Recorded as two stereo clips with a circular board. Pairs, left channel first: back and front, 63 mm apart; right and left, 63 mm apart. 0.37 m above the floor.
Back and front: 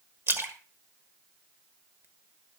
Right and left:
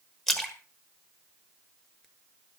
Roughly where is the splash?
Ahead.